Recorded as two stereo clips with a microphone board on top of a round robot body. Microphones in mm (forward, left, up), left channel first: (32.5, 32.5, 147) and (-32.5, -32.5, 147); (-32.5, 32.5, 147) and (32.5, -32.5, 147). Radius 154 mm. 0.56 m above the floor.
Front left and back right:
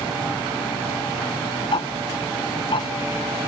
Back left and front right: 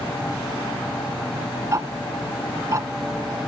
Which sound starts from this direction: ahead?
Ticking, at 1.7 s.